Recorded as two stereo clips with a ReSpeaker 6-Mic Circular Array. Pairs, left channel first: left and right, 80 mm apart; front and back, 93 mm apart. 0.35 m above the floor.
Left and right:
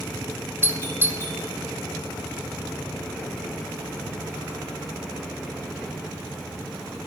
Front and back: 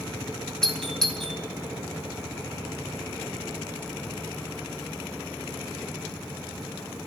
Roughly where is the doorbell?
Right.